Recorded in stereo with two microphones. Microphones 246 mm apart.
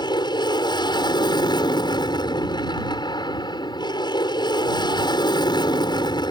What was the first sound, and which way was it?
An aircraft, 15° left (ahead or behind).